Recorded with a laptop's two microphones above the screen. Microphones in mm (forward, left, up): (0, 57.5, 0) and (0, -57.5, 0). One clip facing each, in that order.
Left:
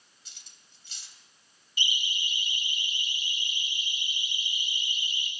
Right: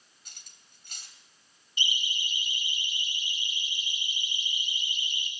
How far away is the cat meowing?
I don't hear a cat meowing.